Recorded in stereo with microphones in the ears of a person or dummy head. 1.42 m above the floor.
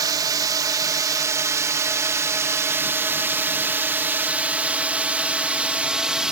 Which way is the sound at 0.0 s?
20° right (ahead or behind).